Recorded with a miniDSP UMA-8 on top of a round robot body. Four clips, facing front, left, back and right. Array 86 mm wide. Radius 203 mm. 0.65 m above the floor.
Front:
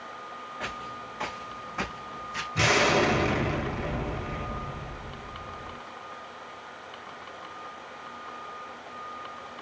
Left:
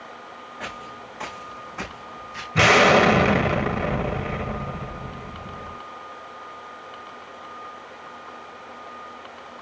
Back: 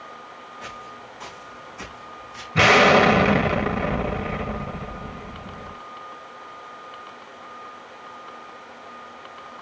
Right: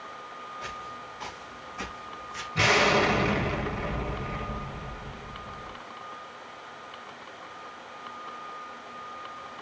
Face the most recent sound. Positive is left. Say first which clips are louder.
# left 7 dB, back 9 dB
turn(degrees=140)